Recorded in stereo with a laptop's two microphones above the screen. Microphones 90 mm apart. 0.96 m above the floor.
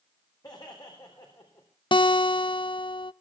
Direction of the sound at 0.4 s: 55° left (ahead or behind).